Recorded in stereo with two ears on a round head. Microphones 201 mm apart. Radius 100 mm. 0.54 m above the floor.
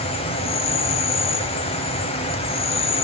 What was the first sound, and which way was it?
An insect, 25° left (ahead or behind).